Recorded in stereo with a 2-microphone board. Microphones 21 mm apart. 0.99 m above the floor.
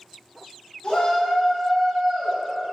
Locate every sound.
0.8 s a shout: 55° left (ahead or behind), 1.3 m; by 2.4 s 40° right (ahead or behind), 1.1 m